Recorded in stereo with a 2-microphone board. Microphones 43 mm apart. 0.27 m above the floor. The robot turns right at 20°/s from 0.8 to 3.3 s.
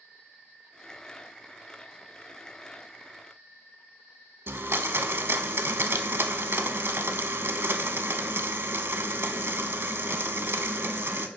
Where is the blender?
70° right (ahead or behind), 0.6 m.